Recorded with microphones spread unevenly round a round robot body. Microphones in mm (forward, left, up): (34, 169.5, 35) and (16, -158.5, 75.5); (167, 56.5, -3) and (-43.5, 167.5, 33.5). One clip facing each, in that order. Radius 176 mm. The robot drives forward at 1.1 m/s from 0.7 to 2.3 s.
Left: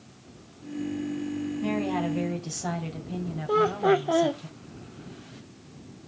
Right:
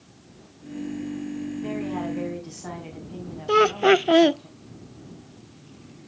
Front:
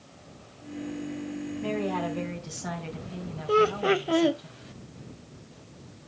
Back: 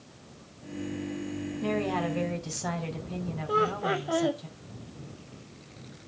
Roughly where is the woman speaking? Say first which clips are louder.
Left 2 dB, back 1 dB; left.